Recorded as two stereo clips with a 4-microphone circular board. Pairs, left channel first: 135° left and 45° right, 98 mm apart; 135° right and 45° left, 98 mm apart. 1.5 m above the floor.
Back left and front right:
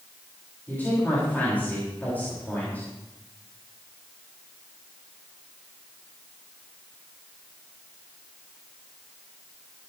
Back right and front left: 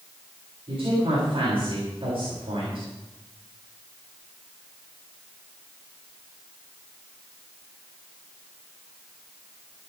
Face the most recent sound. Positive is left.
turn(degrees=65)